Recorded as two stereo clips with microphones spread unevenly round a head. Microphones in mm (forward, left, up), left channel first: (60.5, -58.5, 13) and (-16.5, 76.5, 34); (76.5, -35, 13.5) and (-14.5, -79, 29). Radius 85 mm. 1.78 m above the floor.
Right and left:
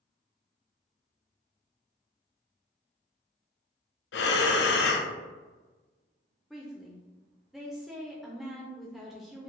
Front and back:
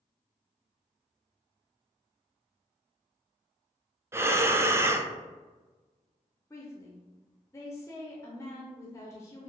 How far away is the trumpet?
No trumpet in this recording.